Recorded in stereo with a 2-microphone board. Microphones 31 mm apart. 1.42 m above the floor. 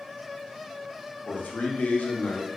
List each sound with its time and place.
1.3 s a man speaking: 65° left (ahead or behind), 0.6 m